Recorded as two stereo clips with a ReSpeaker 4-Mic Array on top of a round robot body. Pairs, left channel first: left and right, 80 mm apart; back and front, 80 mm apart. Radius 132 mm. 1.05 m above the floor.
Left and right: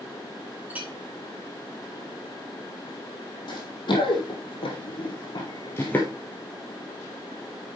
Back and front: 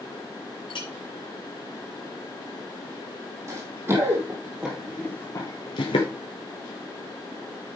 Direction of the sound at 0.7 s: 160° right.